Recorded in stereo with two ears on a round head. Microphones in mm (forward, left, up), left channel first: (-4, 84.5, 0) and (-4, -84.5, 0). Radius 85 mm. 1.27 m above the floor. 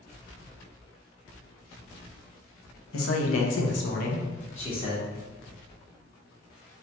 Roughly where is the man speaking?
Left.